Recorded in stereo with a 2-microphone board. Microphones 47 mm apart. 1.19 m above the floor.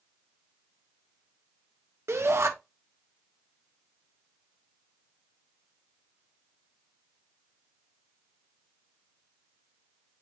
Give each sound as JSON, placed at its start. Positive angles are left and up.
{"t": 2.1, "sound": "a shout", "side_deg": -70, "distance_m": 1.2}